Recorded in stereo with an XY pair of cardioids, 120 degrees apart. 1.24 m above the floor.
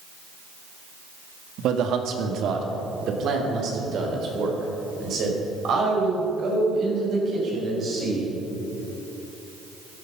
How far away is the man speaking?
About 1.6 m.